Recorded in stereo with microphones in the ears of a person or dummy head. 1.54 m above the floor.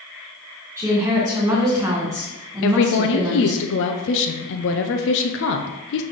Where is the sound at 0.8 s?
15° right (ahead or behind), 2 m.